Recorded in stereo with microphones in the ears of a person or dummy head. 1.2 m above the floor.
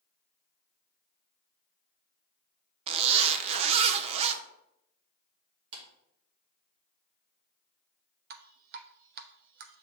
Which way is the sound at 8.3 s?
60° right (ahead or behind).